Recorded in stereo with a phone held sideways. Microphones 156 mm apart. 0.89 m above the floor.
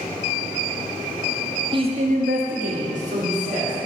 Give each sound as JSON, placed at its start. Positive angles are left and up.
{"t": 1.7, "sound": "a man speaking", "side_deg": -30, "distance_m": 0.7}